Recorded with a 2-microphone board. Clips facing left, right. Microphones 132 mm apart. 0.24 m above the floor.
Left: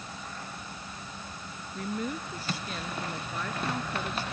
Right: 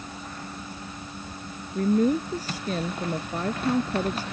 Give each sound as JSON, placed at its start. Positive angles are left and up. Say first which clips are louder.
{"t": 1.8, "sound": "a woman speaking", "louder": "right 12 dB", "side_deg": -40}